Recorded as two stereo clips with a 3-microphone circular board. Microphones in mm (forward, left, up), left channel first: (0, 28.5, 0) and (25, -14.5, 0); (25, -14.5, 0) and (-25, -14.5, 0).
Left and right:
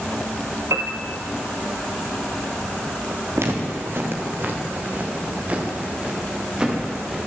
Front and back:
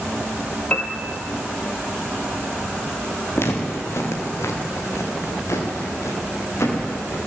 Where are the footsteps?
30° right, 5 m; by 7.2 s 15° left, 7.5 m.